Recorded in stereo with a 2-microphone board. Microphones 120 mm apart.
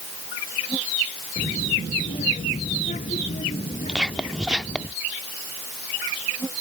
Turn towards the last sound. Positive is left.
turn(degrees=-5)  # may be behind; listen again after turning